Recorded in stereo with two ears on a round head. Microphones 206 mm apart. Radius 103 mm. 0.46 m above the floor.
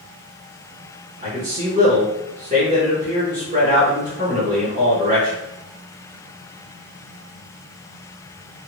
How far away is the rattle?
I don't hear a rattle.